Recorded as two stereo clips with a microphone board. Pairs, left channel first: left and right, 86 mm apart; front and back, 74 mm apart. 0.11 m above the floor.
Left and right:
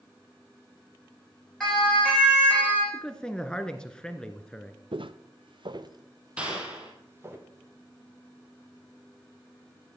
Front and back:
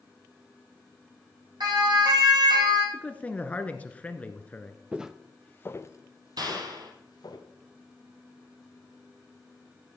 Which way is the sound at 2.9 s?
30° left.